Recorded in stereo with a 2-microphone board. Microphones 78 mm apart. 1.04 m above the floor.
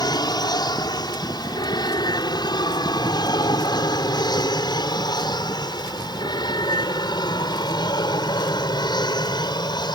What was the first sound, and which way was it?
An aircraft, 60° left (ahead or behind).